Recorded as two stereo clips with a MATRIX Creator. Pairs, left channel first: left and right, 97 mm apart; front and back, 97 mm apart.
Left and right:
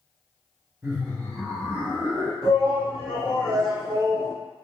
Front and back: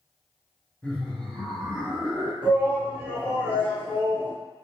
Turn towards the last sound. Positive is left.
turn(degrees=-110)